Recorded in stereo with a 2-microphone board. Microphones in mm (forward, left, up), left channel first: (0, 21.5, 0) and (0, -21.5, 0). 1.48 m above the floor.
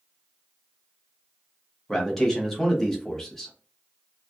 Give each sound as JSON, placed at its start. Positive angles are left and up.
{"t": 1.9, "sound": "a man speaking", "side_deg": 10, "distance_m": 1.0}